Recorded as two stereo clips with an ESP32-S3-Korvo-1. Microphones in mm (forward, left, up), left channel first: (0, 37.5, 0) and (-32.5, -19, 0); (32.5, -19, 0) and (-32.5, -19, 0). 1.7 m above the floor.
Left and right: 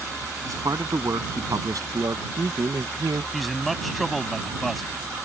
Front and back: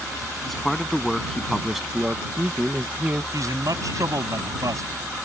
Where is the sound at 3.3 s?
150° left.